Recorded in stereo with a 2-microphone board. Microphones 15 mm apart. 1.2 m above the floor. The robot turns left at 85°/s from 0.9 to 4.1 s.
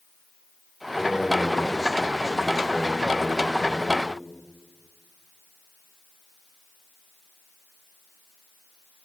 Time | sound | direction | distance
0.9 | a man speaking | 20° left | 3 m